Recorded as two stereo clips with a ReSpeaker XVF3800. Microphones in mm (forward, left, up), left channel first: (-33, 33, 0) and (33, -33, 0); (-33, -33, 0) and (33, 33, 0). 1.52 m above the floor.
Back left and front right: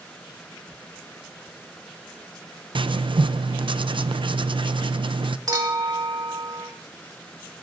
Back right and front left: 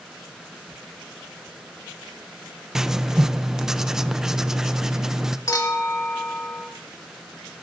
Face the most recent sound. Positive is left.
turn(degrees=-85)